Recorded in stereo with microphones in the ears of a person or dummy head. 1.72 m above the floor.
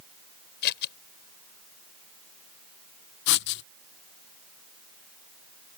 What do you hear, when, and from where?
0.6 s scissors: 55° left (ahead or behind)
3.3 s writing: 60° left (ahead or behind)